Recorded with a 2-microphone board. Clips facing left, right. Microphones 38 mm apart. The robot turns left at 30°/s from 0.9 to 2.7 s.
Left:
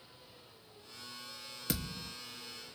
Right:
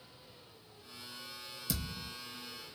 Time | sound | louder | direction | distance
1.7 | a thud | left 2 dB | 50° left (ahead or behind) | 1.3 m